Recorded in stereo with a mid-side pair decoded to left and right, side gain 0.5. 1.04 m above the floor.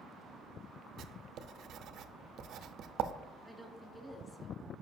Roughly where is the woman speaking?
Ahead.